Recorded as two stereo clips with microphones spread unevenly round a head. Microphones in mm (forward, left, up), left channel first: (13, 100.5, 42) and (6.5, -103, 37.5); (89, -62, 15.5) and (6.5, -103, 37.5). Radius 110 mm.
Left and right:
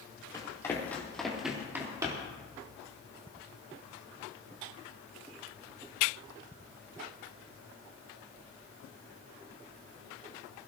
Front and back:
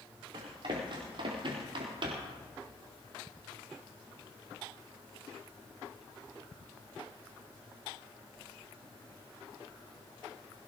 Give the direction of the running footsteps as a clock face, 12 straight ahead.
7 o'clock.